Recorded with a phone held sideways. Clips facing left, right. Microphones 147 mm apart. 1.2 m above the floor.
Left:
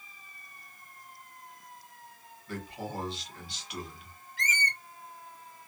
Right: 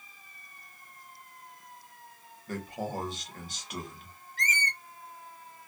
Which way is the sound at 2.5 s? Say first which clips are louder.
Right 3 dB; 45° right (ahead or behind).